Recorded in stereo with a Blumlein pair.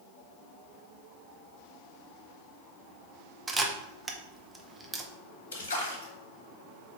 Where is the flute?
No flute in this recording.